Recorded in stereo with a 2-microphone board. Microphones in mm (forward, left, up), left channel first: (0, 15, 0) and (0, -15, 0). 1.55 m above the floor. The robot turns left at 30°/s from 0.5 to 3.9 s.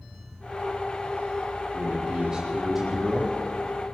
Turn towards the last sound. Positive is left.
turn(degrees=160)